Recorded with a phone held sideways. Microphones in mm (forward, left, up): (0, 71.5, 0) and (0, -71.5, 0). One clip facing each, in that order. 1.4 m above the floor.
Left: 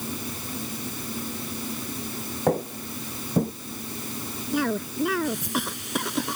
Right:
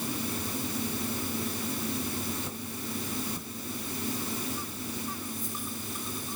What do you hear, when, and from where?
2.5 s footsteps: 70° left (ahead or behind)
4.5 s a cough: 85° left